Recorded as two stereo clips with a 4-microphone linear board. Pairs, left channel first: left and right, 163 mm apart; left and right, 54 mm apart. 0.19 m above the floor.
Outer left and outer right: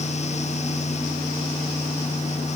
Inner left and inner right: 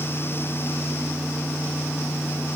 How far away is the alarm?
No alarm in this recording.